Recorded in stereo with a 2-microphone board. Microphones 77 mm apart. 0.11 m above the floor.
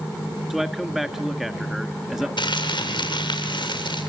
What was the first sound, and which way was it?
A man speaking, 5° right (ahead or behind).